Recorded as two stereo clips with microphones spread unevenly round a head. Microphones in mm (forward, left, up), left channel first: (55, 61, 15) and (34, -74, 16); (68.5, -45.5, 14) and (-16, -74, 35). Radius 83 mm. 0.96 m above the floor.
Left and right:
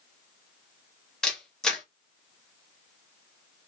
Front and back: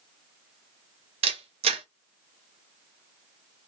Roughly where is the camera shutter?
Behind.